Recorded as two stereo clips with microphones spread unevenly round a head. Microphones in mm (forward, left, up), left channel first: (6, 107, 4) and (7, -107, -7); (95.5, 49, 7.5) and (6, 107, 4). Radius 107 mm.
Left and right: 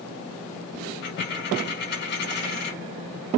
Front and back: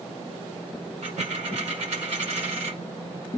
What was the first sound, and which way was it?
A dropped coin, 130° left.